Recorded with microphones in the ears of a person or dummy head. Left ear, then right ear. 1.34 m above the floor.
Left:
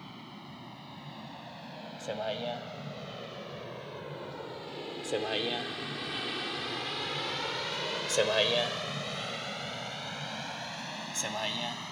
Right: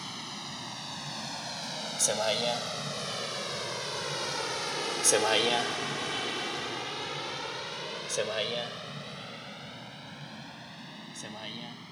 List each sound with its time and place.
0.0 s a vehicle: 75° right (ahead or behind); by 11.9 s 45° left (ahead or behind)